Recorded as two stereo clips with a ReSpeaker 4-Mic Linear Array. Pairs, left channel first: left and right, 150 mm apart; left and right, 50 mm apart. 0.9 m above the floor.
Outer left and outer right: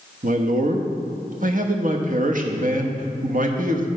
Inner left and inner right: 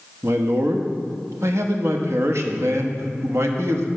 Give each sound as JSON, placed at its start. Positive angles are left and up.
{"t": 0.2, "sound": "a man speaking", "side_deg": -65, "distance_m": 1.0}